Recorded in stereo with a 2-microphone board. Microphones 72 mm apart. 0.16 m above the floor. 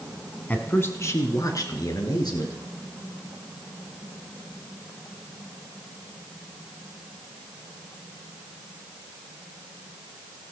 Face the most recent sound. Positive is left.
turn(degrees=65)  # may be behind; listen again after turning